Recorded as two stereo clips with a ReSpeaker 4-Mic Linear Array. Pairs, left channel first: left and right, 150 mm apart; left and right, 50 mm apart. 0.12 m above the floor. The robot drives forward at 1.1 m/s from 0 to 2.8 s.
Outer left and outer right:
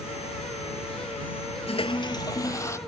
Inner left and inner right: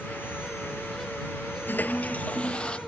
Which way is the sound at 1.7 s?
45° left (ahead or behind).